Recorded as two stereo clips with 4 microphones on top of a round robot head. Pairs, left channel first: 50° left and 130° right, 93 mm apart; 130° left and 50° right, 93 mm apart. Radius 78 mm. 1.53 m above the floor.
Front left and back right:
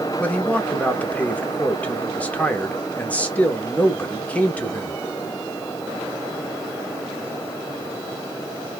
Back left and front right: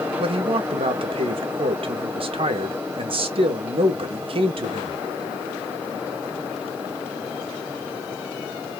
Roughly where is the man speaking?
Ahead right.